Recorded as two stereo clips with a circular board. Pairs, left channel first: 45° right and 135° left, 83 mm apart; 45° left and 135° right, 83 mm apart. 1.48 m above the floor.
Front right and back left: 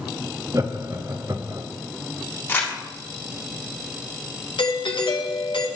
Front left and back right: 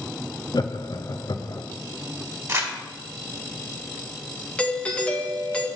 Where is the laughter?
85° left, 0.5 m.